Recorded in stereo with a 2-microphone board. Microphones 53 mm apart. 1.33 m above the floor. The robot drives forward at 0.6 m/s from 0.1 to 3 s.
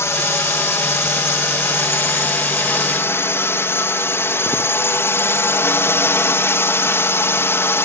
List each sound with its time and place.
0.0 s a drone: 60° left (ahead or behind); by 7.9 s 50° left (ahead or behind)